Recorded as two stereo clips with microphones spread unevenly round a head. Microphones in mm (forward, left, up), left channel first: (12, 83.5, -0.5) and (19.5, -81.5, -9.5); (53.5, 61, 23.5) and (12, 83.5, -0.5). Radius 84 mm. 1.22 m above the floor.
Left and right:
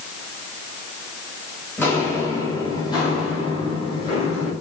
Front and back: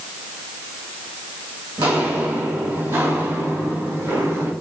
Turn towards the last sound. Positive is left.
turn(degrees=150)